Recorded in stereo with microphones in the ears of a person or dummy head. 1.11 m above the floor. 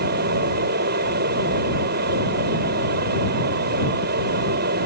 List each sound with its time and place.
0.0 s a fan: 50° right (ahead or behind)